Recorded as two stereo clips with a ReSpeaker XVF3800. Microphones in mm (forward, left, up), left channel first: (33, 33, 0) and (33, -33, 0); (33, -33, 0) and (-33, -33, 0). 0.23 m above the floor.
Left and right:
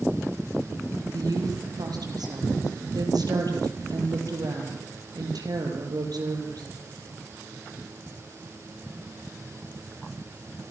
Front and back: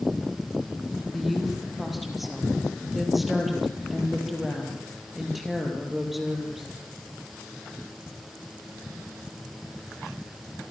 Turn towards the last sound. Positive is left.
turn(degrees=-90)